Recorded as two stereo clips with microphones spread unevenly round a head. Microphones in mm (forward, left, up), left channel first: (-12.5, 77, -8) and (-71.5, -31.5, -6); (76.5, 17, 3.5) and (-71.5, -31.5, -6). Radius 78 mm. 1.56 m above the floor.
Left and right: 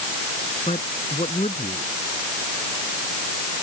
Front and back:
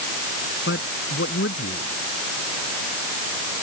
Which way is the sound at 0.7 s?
5° left.